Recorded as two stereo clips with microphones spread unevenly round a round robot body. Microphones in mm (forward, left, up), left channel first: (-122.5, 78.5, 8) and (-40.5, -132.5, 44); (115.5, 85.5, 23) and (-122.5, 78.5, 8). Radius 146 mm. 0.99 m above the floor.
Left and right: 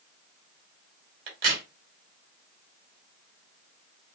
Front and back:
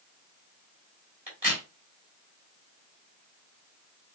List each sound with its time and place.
1.3 s a crack: 105° right, 2.5 m